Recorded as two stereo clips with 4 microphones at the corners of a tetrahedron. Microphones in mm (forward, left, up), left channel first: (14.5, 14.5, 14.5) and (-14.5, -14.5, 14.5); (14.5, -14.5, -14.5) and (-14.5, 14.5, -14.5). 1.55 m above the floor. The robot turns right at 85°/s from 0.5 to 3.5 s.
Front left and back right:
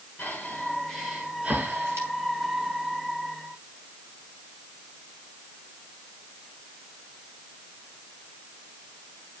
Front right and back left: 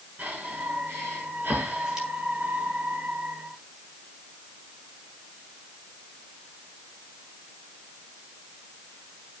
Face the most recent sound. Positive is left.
turn(degrees=-20)